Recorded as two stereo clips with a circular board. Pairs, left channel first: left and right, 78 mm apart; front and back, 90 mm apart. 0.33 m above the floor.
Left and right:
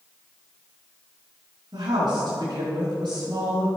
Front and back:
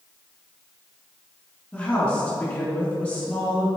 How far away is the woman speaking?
About 3 m.